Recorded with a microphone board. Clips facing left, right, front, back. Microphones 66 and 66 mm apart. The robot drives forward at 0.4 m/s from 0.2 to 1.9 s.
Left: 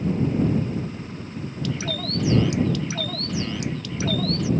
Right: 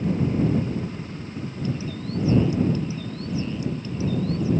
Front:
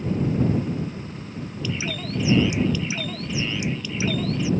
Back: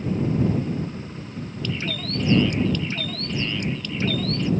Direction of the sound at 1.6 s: 80° left.